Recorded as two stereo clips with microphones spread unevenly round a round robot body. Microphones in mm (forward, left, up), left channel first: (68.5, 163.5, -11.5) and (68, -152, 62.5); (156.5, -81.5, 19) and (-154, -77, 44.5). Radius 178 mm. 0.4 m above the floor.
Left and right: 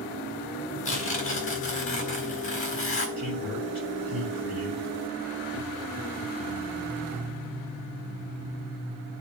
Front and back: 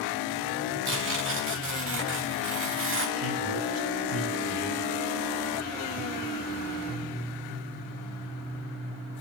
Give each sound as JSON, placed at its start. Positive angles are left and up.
{"t": 0.8, "sound": "tearing paper", "azimuth_deg": 135, "distance_m": 2.0}
{"t": 3.2, "sound": "a man speaking", "azimuth_deg": 170, "distance_m": 3.5}